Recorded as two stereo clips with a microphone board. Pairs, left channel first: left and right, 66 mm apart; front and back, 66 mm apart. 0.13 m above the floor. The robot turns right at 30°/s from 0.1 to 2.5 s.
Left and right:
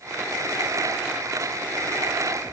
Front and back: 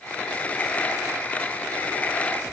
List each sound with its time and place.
Only background noise.